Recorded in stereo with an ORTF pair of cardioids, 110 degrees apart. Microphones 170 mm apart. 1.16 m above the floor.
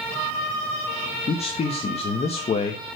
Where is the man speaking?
35° left, 1.4 m.